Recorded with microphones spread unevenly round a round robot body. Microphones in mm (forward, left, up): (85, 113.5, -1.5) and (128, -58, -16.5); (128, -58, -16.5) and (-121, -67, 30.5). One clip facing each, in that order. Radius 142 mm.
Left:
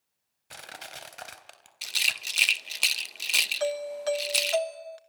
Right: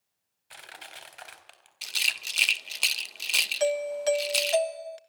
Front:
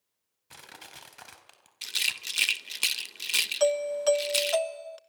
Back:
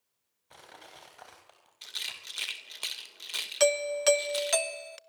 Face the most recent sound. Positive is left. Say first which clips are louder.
# right 3 dB, front 1 dB
turn(degrees=-130)